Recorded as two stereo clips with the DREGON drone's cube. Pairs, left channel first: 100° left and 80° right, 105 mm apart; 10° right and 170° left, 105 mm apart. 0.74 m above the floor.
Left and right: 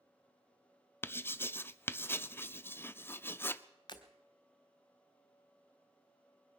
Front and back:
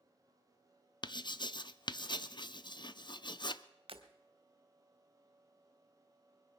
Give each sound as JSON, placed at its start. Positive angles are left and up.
{"t": 1.0, "sound": "writing", "azimuth_deg": 30, "distance_m": 0.6}
{"t": 3.9, "sound": "breaking glass", "azimuth_deg": 145, "distance_m": 1.3}